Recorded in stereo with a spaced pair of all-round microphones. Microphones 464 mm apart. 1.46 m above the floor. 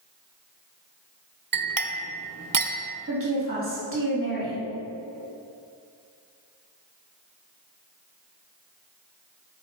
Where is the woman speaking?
25° right (ahead or behind), 2.5 m.